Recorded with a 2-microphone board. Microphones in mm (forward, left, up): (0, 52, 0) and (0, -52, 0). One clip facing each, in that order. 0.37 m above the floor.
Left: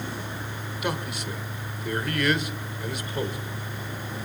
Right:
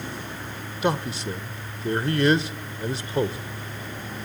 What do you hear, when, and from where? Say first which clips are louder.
0.8 s a man speaking: right 6 dB; 30° right (ahead or behind), 1.0 m